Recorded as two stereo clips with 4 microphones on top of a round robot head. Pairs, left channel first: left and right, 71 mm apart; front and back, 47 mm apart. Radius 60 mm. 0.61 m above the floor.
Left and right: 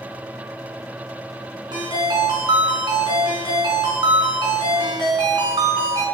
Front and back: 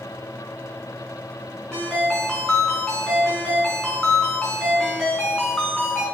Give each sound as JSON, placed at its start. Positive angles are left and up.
{"t": 1.7, "sound": "a ringtone", "azimuth_deg": -80, "distance_m": 4.5}